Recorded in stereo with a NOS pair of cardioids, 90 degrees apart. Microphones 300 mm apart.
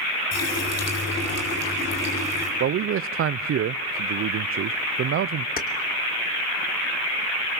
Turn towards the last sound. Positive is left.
turn(degrees=30)